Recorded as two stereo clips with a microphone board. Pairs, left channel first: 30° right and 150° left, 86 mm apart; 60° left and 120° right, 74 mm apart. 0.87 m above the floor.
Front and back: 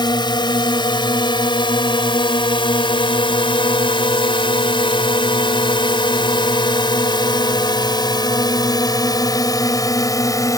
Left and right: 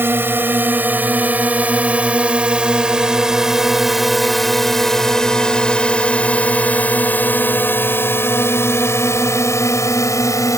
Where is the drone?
60° right; by 10.6 s 20° left.